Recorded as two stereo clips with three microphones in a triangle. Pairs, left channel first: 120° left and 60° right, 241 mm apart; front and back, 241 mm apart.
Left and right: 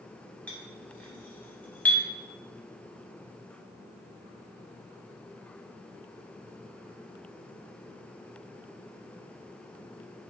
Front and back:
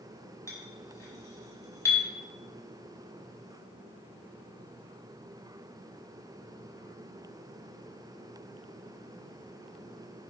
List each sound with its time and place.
0.5 s a clink: 50° left, 0.6 m